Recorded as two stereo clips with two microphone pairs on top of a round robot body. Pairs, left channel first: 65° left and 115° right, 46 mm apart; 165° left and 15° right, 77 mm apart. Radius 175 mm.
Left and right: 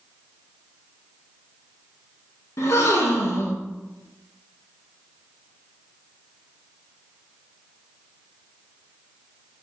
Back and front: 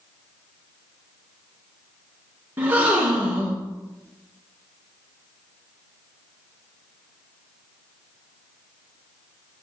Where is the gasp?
55° left, 1.7 m.